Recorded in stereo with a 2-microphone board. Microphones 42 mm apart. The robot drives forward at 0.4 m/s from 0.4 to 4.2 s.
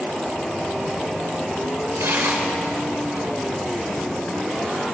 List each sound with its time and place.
2.0 s tearing paper: 75° right (ahead or behind), 3 m